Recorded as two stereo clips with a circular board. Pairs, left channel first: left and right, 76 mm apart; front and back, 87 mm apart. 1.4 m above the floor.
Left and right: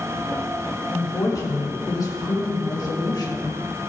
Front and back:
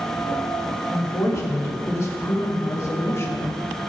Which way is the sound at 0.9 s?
50° left.